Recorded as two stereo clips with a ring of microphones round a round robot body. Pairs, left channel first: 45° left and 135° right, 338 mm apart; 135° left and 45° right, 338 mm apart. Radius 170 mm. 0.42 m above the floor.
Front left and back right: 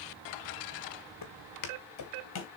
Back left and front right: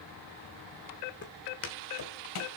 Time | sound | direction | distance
1.2 | footsteps | 75° left | 2 m